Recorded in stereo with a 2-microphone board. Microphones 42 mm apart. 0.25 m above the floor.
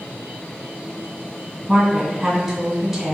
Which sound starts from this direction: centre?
A woman speaking, at 1.7 s.